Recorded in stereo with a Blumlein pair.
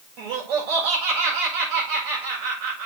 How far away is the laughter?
About 7.5 m.